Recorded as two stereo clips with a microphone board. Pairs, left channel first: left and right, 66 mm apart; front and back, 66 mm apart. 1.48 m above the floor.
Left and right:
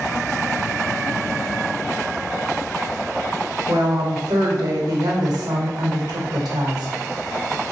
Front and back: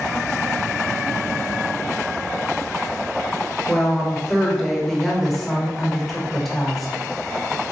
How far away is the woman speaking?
About 1.0 m.